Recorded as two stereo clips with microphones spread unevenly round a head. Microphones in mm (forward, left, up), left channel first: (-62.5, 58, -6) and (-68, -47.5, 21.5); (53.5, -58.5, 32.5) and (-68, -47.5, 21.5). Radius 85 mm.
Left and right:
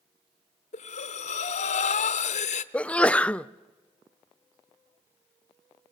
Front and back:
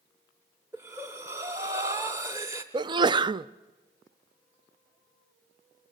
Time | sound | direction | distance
0.7 | breathing | 100° left | 0.9 m
2.7 | a sneeze | 145° left | 0.5 m